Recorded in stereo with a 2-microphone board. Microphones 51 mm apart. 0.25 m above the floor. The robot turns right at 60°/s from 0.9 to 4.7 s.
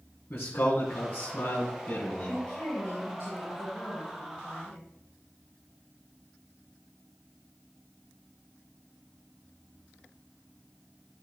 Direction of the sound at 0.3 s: 85° left.